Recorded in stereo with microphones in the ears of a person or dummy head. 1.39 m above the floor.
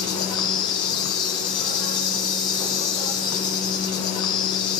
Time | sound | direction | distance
0.0 | an insect | 20° left (ahead or behind) | 1.8 m